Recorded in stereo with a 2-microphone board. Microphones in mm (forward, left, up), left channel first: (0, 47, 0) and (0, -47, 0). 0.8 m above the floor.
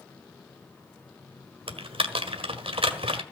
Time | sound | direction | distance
1.7 | typing on a keyboard | 80° right | 1.6 m